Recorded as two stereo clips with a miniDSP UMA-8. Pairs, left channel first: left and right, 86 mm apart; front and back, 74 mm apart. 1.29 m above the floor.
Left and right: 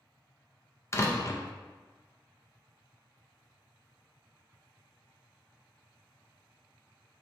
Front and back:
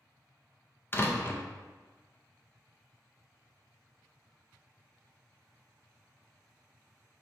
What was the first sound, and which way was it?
A door slam, 45° left.